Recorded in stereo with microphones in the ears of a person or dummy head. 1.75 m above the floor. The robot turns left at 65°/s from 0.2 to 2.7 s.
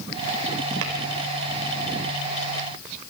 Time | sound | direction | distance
0.8 | tapping | 70° right (ahead or behind) | 4 m